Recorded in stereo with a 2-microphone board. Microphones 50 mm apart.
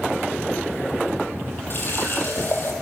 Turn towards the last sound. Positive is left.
turn(degrees=50)  # may be behind; listen again after turning